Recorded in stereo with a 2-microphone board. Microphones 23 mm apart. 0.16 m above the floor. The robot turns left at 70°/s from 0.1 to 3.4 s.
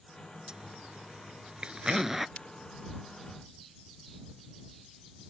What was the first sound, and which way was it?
A zipper, 40° right (ahead or behind).